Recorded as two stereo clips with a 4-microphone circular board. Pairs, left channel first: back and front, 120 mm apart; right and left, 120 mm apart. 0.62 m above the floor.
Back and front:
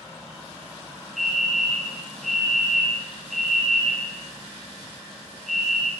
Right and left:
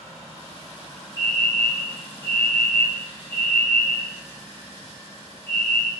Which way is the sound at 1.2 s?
95° right.